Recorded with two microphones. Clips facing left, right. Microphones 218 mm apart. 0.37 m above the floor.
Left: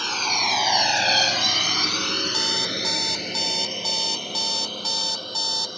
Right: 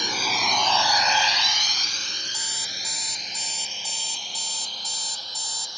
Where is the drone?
15° right (ahead or behind); by 5.8 s 55° left (ahead or behind).